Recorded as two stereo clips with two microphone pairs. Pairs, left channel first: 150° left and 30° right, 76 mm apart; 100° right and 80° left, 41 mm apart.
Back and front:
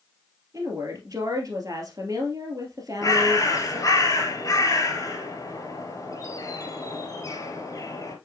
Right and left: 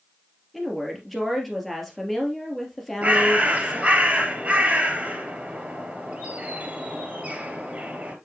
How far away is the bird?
About 2 m.